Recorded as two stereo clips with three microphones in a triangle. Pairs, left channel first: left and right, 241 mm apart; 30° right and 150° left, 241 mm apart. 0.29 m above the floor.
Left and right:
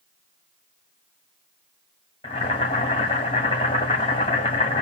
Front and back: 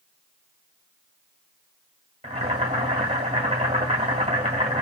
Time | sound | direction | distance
2.2 | boiling | 130° left | 1.7 m